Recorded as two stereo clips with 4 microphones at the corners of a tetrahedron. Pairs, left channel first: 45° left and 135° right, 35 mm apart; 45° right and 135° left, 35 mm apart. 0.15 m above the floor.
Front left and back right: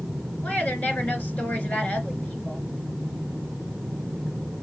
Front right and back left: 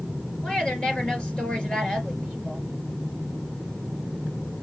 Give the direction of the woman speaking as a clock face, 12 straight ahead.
12 o'clock.